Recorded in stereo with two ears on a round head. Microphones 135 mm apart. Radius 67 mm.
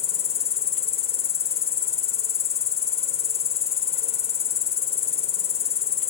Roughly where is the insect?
Left.